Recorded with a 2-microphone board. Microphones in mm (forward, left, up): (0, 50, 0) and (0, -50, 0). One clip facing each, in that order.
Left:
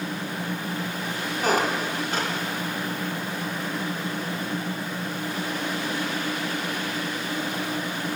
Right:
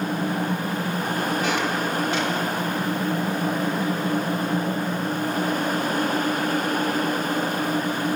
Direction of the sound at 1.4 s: 40° left (ahead or behind).